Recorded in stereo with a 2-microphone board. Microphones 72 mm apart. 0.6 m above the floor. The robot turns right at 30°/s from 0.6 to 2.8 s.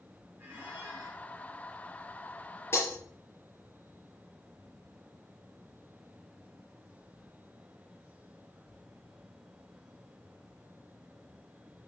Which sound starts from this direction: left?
Breaking glass, at 2.7 s.